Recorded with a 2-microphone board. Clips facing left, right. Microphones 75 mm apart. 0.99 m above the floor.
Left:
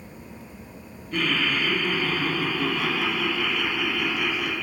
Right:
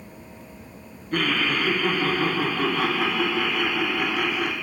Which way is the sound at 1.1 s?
50° right (ahead or behind).